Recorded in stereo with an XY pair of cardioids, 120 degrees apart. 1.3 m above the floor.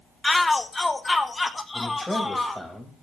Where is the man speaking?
5° left, 6 m.